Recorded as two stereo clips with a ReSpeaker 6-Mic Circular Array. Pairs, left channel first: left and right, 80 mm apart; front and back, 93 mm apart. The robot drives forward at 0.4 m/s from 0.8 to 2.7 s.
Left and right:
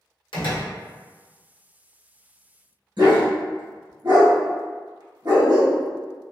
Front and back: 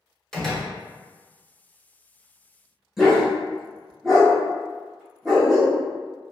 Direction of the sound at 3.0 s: 90° right.